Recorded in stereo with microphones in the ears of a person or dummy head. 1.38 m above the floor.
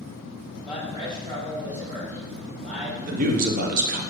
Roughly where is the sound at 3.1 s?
Right.